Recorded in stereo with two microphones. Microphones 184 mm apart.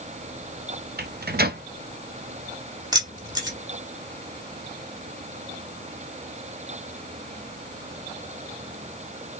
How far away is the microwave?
About 0.5 m.